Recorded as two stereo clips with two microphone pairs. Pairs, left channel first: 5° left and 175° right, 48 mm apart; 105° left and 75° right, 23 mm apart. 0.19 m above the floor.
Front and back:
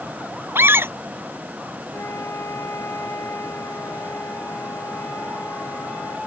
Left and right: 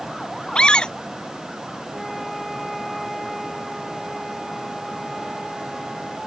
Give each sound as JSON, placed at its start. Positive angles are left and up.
{"t": 0.6, "sound": "a scream", "azimuth_deg": 150}
{"t": 1.9, "sound": "a flute", "azimuth_deg": 20}